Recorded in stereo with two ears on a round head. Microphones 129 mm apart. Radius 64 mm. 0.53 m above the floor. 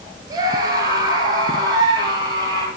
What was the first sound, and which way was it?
A scream, 25° right (ahead or behind).